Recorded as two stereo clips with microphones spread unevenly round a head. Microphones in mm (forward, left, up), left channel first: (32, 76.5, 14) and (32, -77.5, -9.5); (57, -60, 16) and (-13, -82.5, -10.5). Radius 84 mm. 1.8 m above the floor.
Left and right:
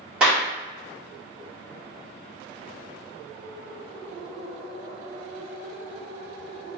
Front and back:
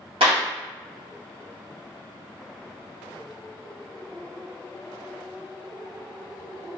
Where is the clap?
175° right, 1.7 m.